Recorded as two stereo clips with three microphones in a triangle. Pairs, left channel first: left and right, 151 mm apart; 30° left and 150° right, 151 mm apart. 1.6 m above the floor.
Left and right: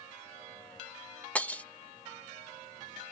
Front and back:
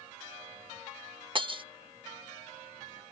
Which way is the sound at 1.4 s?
165° left.